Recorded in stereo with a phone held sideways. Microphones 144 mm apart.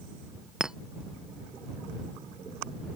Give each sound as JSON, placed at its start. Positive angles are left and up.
{"t": 0.6, "sound": "a clink", "side_deg": -5}